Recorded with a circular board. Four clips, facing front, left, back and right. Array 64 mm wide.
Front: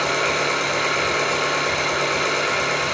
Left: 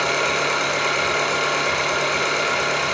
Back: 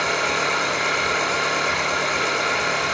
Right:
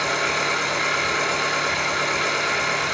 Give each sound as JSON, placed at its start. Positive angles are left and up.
{"t": 0.0, "sound": "an engine running", "azimuth_deg": 55, "distance_m": 1.2}